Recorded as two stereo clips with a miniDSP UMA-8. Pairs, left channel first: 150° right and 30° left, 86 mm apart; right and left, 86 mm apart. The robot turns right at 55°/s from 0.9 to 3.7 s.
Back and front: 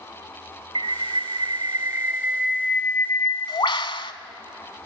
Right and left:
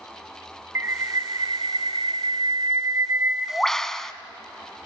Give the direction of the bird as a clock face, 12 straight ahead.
11 o'clock.